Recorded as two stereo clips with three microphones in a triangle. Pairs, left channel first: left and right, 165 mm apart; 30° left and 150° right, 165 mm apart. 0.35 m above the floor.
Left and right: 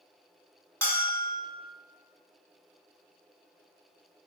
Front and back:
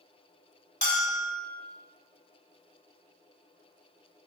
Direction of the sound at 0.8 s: 20° left.